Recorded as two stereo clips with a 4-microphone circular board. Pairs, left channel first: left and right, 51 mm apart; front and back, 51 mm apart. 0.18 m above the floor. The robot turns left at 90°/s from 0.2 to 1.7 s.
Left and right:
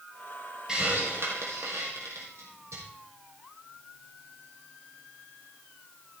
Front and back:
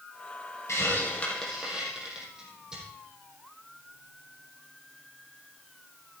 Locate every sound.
0.7 s a hiss: 15° right, 3.5 m; by 2.8 s 105° right, 3.5 m